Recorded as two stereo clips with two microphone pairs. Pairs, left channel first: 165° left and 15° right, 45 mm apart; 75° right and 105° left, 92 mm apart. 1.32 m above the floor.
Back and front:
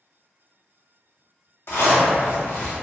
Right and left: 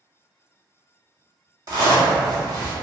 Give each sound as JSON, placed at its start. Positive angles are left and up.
{"t": 1.7, "sound": "a zipper", "azimuth_deg": 150, "distance_m": 0.8}